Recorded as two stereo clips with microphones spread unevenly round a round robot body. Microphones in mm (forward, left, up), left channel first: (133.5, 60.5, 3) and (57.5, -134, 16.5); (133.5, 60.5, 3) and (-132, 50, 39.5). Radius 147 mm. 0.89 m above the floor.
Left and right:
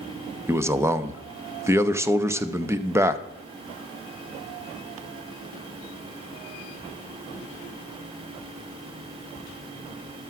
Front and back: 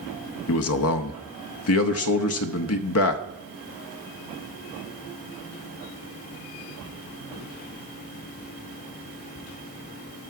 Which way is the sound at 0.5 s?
30° right.